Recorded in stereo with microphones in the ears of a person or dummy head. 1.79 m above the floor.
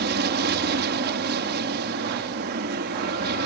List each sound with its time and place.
0.0 s an aircraft: 55° right (ahead or behind)